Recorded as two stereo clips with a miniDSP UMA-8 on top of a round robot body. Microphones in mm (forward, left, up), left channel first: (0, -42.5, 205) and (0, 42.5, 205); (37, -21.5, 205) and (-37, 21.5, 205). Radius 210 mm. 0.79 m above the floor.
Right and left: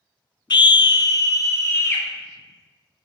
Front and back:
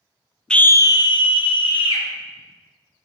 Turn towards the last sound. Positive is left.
turn(degrees=-30)